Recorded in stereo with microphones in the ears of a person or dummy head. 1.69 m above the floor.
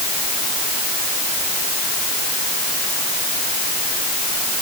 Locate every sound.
Only background noise.